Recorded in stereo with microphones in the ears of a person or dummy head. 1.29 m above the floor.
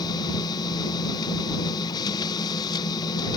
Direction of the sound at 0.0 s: 25° left (ahead or behind).